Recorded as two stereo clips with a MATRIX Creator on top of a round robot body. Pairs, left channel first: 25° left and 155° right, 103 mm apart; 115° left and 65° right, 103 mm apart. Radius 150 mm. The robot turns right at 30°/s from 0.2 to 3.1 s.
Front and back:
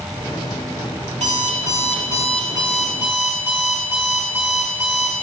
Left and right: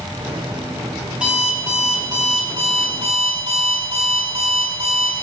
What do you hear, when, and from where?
1.1 s an alarm clock: 150° right, 5 m; by 5.1 s 90° right, 5 m